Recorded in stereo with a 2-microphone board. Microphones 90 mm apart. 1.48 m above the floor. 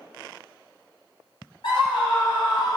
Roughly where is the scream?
Left.